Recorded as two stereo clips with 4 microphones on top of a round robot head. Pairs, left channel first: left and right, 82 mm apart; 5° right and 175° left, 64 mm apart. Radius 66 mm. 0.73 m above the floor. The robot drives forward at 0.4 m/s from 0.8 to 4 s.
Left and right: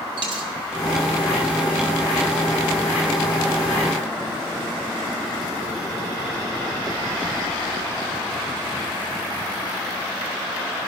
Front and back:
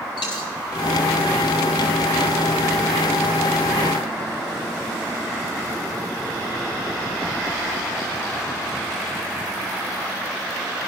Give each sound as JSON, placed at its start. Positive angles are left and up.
{"t": 0.2, "sound": "a dropped coin", "azimuth_deg": -45, "distance_m": 1.3}